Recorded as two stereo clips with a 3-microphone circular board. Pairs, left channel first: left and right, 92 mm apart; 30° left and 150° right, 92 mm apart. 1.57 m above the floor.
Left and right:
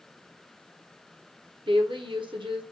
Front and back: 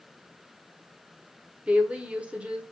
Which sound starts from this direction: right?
A woman speaking, at 1.7 s.